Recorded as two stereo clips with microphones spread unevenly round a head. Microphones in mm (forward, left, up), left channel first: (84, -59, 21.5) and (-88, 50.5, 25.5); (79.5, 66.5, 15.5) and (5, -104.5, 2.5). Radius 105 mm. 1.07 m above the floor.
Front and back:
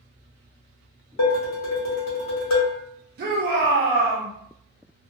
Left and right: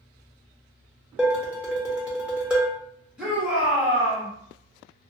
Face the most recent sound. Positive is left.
turn(degrees=165)